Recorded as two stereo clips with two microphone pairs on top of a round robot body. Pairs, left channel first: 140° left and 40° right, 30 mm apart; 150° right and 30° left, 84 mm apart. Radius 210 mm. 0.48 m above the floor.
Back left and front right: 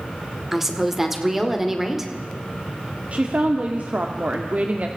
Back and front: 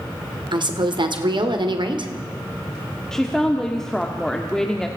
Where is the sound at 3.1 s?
65° right, 1.9 m.